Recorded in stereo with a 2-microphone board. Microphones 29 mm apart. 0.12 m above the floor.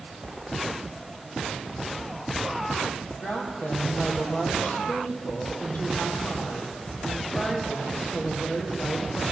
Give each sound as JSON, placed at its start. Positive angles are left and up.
{"t": 3.2, "sound": "a woman speaking", "side_deg": 70, "distance_m": 3.0}